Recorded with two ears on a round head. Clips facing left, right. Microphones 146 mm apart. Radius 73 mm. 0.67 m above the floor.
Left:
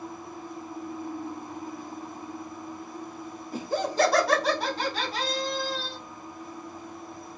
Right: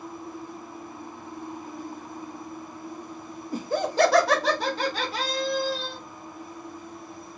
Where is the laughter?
35° right (ahead or behind), 0.5 m; by 6.0 s 75° right (ahead or behind), 1.8 m.